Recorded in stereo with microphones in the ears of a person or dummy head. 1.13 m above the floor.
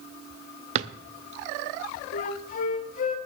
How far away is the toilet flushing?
No toilet flushing in this recording.